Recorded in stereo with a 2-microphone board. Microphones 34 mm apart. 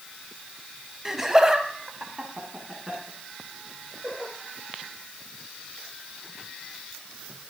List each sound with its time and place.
1.1 s laughter: 10° right (ahead or behind), 1.3 m; by 4.3 s 15° right (ahead or behind), 4 m